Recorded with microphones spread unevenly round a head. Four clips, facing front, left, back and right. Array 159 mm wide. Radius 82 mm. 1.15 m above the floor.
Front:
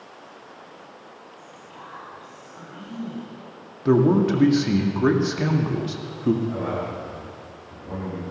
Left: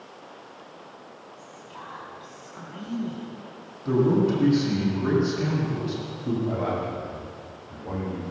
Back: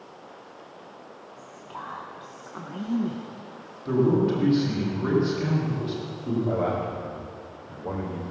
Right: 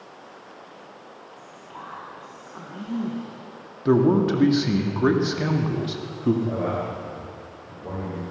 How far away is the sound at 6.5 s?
About 5 m.